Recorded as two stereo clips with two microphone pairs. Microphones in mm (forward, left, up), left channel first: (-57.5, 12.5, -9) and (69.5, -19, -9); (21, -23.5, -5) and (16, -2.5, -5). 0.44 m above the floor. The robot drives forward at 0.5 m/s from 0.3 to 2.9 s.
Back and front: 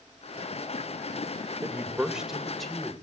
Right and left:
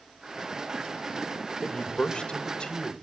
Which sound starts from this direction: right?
A man speaking, at 1.6 s.